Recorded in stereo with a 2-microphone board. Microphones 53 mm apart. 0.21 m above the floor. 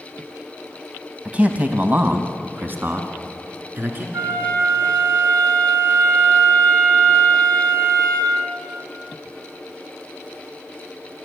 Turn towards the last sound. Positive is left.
turn(degrees=-50)  # may be behind; listen again after turning